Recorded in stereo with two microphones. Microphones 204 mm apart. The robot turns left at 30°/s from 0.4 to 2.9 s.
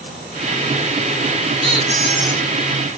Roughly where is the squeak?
Right.